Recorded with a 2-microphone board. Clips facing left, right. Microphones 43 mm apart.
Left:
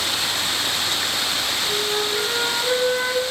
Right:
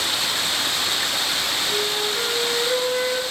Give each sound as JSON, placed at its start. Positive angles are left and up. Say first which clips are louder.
{"t": 1.6, "sound": "a flute", "louder": "left 1 dB", "side_deg": 20, "distance_m": 6.5}